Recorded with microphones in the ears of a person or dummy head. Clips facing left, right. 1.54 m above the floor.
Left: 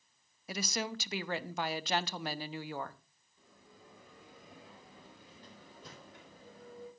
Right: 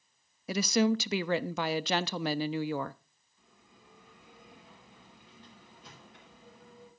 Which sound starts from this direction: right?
A woman speaking, at 0.5 s.